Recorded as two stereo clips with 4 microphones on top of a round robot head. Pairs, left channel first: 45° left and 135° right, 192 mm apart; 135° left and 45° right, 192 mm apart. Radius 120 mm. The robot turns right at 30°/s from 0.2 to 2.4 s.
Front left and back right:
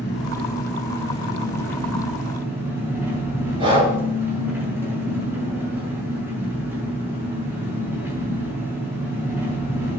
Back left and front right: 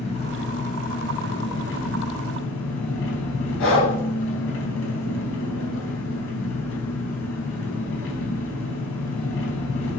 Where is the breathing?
155° left, 3.5 m.